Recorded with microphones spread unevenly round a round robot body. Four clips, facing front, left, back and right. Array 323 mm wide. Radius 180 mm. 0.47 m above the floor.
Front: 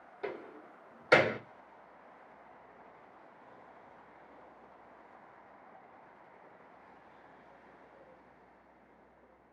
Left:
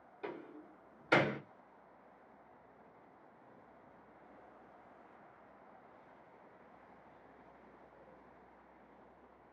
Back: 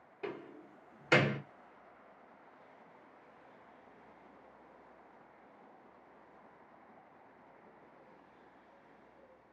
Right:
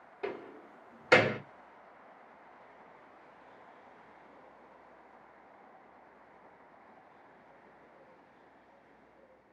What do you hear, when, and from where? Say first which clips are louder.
0.2 s a door slam: right 6 dB, front 2 dB; 70° right, 1.2 m